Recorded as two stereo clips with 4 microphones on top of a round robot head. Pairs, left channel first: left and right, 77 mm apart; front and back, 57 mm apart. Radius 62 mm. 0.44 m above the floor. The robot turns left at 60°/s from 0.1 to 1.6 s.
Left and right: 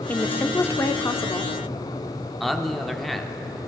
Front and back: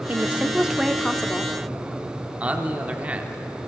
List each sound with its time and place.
0.1 s a woman speaking: 145° left, 0.8 m; by 1.5 s 60° left, 0.8 m
2.4 s a man speaking: 175° left, 1.2 m